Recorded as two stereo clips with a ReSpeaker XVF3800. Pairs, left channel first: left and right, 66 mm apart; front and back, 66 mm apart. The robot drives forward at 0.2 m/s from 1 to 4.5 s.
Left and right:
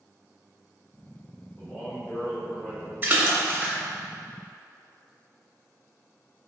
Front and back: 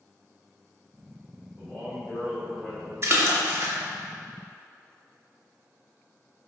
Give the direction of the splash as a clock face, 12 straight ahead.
5 o'clock.